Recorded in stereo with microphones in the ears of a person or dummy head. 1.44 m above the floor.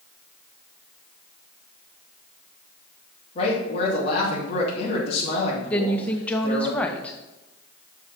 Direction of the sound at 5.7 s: 10° left (ahead or behind).